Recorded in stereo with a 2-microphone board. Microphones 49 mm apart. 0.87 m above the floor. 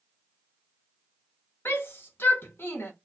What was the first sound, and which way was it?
A shout, 50° left (ahead or behind).